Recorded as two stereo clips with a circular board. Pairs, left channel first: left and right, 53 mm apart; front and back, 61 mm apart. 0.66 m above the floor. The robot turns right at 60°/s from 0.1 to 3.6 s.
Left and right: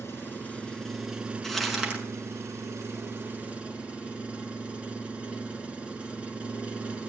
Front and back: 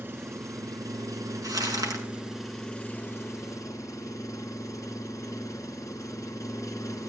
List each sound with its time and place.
0.0 s an engine running: 125° left, 2 m; by 7.1 s 25° right, 2 m
1.4 s crumpling: 170° left, 5 m; by 2.0 s 155° right, 5 m